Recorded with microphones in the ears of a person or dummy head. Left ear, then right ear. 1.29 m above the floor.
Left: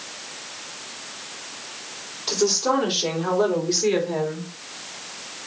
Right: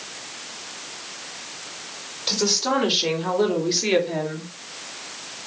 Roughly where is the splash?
I don't hear a splash.